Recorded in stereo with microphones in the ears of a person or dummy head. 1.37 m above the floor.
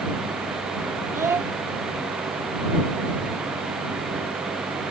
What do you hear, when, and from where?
1.1 s a child speaking: 15° right (ahead or behind)